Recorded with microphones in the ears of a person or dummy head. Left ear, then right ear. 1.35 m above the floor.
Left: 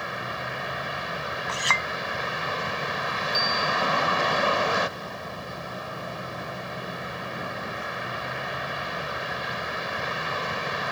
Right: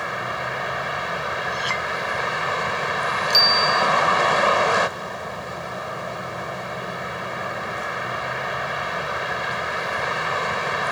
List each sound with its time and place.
0.0 s a vehicle: 35° right (ahead or behind)
1.5 s a clink: 30° left (ahead or behind)
3.3 s a bicycle bell: 55° right (ahead or behind)